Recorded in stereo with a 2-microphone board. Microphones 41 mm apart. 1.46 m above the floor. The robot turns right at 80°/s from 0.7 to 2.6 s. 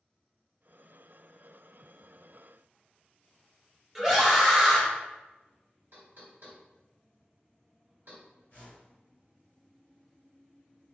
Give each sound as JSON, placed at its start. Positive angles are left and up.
{"t": 4.0, "sound": "a scream", "side_deg": -5, "distance_m": 0.9}
{"t": 5.9, "sound": "knocking", "side_deg": -60, "distance_m": 1.4}
{"t": 8.5, "sound": "a whoosh", "side_deg": 50, "distance_m": 1.9}